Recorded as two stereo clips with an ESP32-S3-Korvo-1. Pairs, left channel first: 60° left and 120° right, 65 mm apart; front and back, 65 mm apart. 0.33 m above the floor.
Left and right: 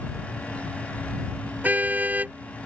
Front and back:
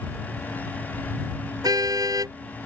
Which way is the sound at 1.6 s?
175° left.